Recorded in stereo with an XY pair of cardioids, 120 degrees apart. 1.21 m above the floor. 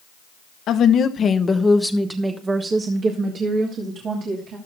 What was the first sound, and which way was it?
A woman speaking, 65° left.